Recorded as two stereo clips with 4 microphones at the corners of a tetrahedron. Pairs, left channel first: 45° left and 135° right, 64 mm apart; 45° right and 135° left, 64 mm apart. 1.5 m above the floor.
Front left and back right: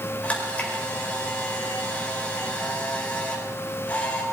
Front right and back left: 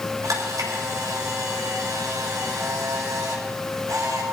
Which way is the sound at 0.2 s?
115° left.